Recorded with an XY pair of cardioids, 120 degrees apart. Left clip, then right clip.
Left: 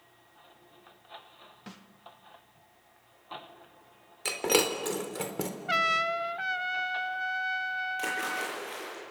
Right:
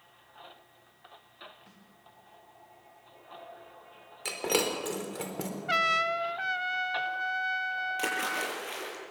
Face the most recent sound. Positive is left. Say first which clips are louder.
# right 1 dB
turn(degrees=-30)